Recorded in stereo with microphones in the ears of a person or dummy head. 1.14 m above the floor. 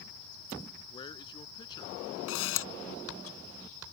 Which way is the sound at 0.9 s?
25° left (ahead or behind).